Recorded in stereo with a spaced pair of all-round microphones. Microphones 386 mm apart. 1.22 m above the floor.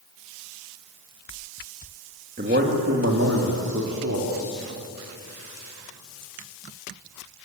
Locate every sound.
2.4 s a man speaking: 25° right (ahead or behind), 2 m; by 4.6 s 50° right (ahead or behind), 4 m